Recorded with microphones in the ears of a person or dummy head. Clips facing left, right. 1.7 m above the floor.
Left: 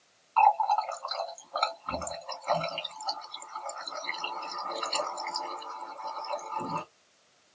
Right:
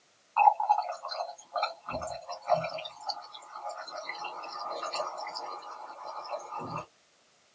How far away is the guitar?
No guitar in this recording.